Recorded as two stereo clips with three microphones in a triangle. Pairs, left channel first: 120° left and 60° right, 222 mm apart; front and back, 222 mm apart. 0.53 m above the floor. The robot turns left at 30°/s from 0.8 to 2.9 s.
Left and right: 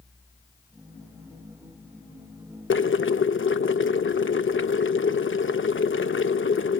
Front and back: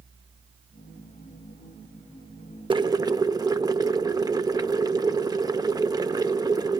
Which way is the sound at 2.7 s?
120° left.